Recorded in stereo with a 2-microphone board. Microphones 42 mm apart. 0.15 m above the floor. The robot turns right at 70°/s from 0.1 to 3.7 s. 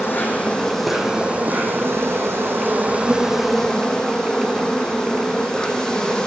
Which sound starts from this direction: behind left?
An insect, at 0.0 s.